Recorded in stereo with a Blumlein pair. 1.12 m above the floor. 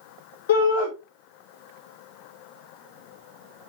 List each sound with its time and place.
0.5 s a shout: 60° left, 2.5 m